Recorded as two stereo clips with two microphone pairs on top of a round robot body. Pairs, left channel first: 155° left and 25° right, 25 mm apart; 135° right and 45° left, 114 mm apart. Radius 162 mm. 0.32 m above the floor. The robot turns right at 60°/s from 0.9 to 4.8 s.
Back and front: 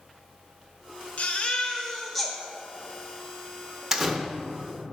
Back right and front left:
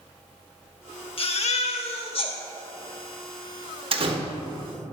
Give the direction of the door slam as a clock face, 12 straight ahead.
10 o'clock.